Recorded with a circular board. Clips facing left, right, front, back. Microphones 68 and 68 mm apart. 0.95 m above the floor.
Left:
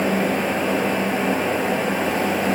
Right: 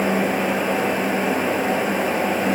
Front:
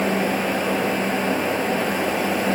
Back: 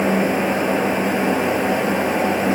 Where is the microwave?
I don't hear a microwave.